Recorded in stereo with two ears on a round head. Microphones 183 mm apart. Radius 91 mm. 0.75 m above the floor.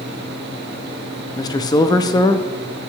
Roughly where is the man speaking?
Centre.